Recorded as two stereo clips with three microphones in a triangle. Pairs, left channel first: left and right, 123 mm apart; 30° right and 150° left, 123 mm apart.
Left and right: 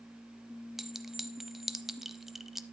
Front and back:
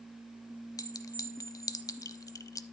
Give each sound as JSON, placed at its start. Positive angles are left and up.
{"t": 0.8, "sound": "a clink", "azimuth_deg": -5, "distance_m": 0.6}